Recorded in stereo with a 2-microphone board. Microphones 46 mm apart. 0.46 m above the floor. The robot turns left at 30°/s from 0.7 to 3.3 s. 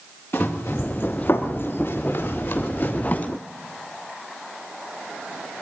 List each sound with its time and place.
0.3 s running footsteps: 55° left (ahead or behind), 4.5 m; by 3.3 s 30° left (ahead or behind), 4 m